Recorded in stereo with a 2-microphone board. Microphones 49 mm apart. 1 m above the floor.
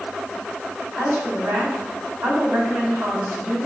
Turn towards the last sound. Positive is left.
turn(degrees=-45)  # may be behind; listen again after turning